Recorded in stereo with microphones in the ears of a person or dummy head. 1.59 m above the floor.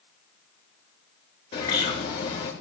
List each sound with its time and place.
1.5 s a bird: 35° left (ahead or behind), 3 m